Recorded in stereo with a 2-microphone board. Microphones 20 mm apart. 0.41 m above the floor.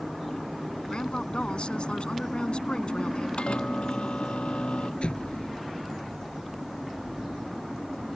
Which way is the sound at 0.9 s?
70° left (ahead or behind).